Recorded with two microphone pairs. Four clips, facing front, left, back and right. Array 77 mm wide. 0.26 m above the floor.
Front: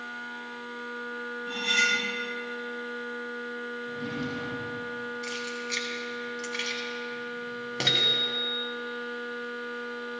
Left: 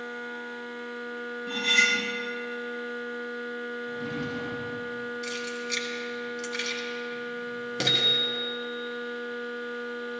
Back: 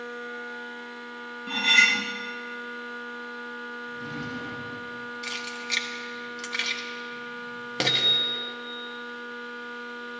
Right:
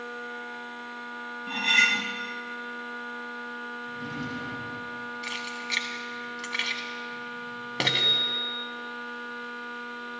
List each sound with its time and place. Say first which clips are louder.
1.5 s cutlery clinking: right 1 dB, back 5 dB; 140° right, 0.8 m
3.9 s a drawer: left 2 dB, front 2 dB; 25° right, 6.5 m
5.2 s keys jangling: left 1 dB, front 1 dB; 110° right, 1.3 m
7.9 s a bicycle bell: left 1 dB, even; 20° right, 2.5 m